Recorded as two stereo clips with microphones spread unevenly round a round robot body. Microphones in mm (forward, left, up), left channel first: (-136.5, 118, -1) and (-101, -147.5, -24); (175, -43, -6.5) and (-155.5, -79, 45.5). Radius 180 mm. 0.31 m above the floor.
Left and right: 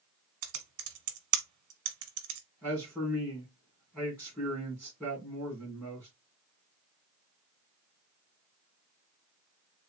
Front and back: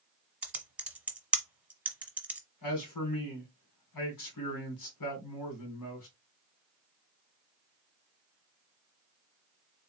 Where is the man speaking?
10° left, 2.5 m.